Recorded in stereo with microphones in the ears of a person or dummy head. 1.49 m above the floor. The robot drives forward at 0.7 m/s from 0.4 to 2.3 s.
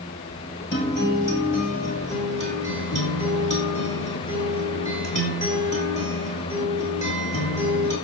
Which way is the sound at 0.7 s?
50° left (ahead or behind).